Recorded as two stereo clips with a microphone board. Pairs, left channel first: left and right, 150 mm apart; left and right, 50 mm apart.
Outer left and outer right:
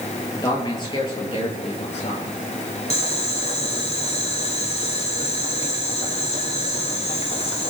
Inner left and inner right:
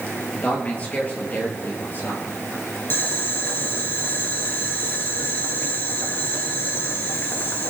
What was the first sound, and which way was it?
A man speaking, 30° left (ahead or behind).